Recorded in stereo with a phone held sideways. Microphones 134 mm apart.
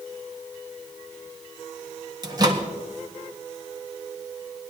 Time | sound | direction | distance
2.2 | a microwave | 30° right (ahead or behind) | 1.4 m